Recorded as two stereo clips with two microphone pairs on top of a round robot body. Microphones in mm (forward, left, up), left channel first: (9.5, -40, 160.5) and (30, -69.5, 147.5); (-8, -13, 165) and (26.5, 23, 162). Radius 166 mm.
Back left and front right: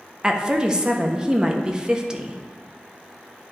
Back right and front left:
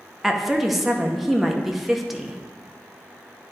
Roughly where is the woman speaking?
Ahead right.